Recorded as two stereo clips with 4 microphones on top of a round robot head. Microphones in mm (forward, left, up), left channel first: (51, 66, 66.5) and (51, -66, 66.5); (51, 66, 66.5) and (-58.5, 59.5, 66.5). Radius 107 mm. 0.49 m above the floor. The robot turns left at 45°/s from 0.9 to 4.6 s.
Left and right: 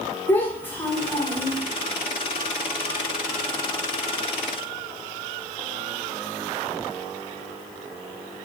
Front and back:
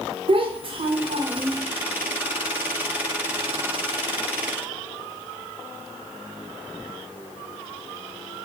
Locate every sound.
0.3 s a child speaking: 165° left, 1.5 m; by 1.6 s 130° left, 1.5 m